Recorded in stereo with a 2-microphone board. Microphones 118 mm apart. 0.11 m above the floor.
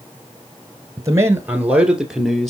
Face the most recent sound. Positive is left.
turn(degrees=0)  # may be behind; listen again after turning